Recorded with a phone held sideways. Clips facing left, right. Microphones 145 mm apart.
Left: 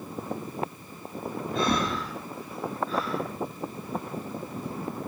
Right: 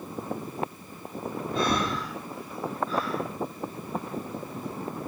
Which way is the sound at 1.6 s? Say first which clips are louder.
Even; 55° left (ahead or behind).